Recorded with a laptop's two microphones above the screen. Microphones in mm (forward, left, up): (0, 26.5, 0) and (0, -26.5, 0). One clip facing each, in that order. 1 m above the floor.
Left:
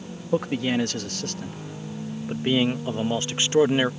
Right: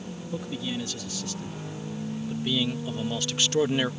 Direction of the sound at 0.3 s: 65° left (ahead or behind).